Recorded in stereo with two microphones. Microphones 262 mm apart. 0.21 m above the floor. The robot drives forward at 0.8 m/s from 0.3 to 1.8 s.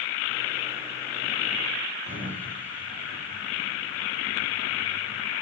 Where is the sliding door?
30° right (ahead or behind), 9 m.